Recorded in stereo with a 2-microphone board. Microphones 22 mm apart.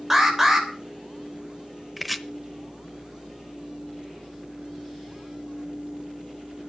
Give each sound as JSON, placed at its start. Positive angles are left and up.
{"t": 0.1, "sound": "an alarm", "side_deg": -15, "distance_m": 3.0}
{"t": 2.0, "sound": "chopping", "side_deg": 0, "distance_m": 0.9}